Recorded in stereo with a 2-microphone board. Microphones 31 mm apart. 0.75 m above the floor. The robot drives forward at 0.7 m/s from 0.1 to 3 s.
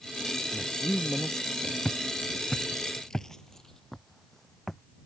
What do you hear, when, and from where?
0.5 s a man speaking: 25° left (ahead or behind); by 1.8 s 20° left (ahead or behind)
1.9 s footsteps: 15° left (ahead or behind); by 4.8 s 5° left (ahead or behind)